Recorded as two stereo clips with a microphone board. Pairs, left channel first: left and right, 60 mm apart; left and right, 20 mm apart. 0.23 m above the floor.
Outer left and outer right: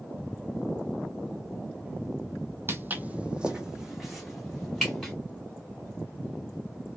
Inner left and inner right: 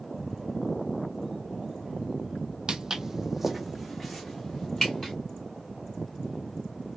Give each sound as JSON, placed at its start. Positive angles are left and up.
{"t": 2.7, "sound": "footsteps", "side_deg": -45, "distance_m": 0.5}